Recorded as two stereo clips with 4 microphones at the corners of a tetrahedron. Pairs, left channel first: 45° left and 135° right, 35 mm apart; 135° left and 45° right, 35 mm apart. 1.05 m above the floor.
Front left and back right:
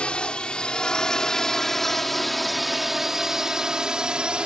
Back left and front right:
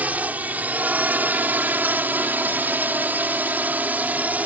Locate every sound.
0.0 s a drone: 10° right; by 4.5 s 75° right